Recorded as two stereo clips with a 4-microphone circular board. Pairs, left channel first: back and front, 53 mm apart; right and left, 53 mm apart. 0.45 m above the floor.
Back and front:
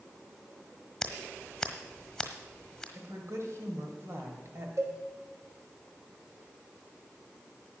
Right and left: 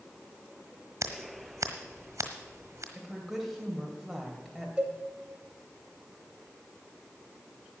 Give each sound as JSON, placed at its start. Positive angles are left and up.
{"t": 1.0, "sound": "scissors", "azimuth_deg": 100, "distance_m": 1.3}
{"t": 3.0, "sound": "a woman speaking", "azimuth_deg": 5, "distance_m": 2.5}
{"t": 4.8, "sound": "a cowbell", "azimuth_deg": 20, "distance_m": 1.8}